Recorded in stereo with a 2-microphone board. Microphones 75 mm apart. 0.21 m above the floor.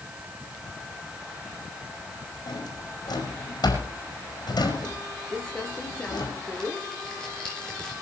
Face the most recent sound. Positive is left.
turn(degrees=10)  # may be behind; listen again after turning